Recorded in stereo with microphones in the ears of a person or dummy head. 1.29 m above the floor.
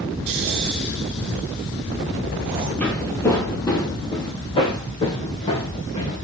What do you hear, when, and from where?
0.3 s snoring: 30° right (ahead or behind), 1.2 m
2.8 s footsteps: 5° left (ahead or behind), 1.8 m; by 6.2 s 30° left (ahead or behind), 3.5 m